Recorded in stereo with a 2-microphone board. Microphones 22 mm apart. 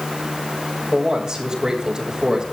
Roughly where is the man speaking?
Right.